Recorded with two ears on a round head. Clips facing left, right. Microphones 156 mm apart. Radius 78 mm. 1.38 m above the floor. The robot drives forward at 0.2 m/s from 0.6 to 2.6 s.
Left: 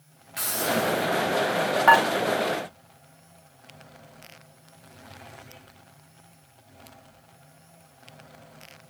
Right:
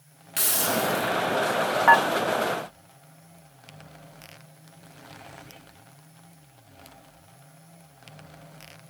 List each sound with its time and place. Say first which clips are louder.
0.4 s a hiss: left 1 dB; 35° right (ahead or behind), 0.7 m; by 1.1 s 30° right (ahead or behind), 0.7 m
1.9 s dishes clattering: left 1 dB; 35° left (ahead or behind), 0.6 m